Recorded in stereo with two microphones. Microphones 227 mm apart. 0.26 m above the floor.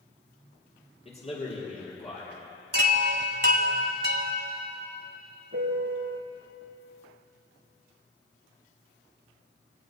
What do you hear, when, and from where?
1.1 s a man speaking: 30° left (ahead or behind), 5.5 m
2.7 s a chime: 50° right (ahead or behind), 1.5 m
5.5 s a piano: 65° right (ahead or behind), 3 m